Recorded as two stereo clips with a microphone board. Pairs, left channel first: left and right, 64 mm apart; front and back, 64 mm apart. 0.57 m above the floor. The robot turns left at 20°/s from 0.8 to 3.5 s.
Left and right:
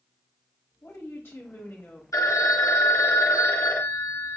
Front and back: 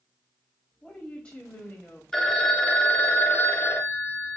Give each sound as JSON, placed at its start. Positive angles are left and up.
{"t": 0.8, "sound": "a woman speaking", "azimuth_deg": 70, "distance_m": 1.1}
{"t": 2.1, "sound": "a phone ringing", "azimuth_deg": 85, "distance_m": 0.6}